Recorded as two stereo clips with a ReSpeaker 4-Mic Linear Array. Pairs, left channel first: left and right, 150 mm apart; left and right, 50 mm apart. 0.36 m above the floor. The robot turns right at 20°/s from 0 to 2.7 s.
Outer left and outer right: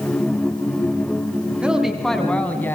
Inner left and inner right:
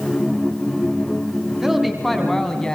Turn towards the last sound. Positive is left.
turn(degrees=15)  # may be behind; listen again after turning